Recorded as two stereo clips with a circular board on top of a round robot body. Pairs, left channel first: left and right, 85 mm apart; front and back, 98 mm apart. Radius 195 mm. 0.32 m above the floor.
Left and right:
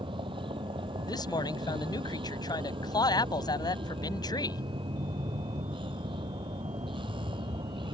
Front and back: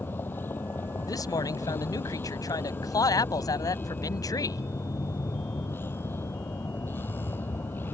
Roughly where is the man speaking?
Ahead left.